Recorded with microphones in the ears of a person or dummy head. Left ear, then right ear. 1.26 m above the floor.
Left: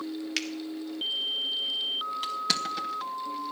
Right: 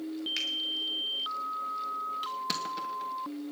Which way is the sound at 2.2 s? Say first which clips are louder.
Left 5 dB; 20° left (ahead or behind).